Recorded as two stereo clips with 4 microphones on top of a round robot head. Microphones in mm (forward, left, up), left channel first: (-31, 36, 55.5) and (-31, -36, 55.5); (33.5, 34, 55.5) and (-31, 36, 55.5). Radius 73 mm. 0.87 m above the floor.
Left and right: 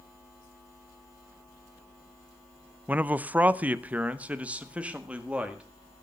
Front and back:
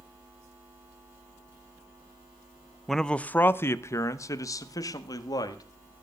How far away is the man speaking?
About 0.6 m.